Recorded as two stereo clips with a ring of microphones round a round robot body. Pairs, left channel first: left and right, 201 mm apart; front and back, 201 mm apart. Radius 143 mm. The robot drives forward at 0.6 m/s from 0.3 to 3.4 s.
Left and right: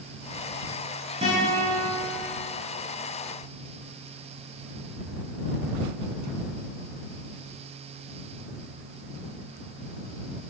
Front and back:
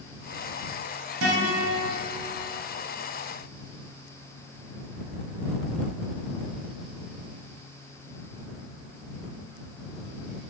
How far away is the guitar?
About 3 m.